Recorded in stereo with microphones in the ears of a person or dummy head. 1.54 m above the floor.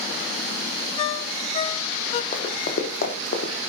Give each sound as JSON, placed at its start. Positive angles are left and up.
{"t": 1.0, "sound": "a ringtone", "side_deg": 30, "distance_m": 0.8}
{"t": 2.3, "sound": "running footsteps", "side_deg": 50, "distance_m": 3.0}